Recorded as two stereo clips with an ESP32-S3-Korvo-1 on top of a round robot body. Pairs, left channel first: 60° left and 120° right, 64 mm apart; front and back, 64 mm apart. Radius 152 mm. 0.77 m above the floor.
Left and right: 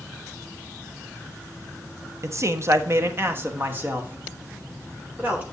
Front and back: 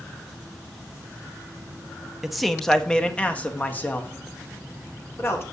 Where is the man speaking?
95° right, 0.9 m; by 5.4 s 50° right, 2.5 m.